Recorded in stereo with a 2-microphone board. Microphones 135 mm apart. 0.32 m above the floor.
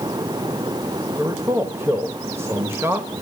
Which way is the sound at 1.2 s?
20° right (ahead or behind).